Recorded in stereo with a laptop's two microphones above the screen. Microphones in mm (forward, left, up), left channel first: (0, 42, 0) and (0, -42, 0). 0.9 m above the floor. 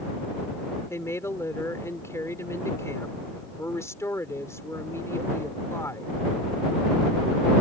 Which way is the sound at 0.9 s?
35° left (ahead or behind).